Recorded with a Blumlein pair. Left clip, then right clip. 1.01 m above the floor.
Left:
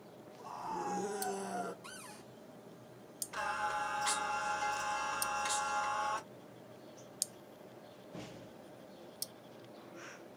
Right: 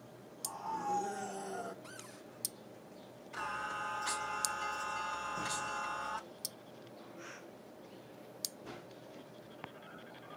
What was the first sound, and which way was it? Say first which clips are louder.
A scream: right 1 dB; 20° left.